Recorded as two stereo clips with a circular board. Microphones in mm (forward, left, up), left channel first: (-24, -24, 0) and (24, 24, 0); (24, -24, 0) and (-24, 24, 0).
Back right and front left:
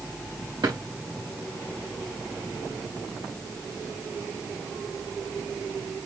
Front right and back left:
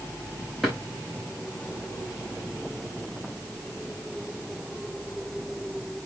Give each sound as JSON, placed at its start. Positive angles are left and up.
{"t": 0.6, "sound": "a drawer", "azimuth_deg": 40, "distance_m": 5.5}